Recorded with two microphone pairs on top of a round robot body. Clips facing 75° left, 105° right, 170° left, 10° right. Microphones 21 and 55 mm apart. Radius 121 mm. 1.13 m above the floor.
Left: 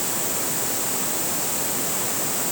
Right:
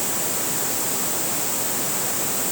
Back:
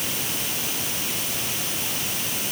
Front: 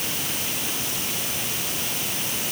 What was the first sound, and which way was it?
Only background noise.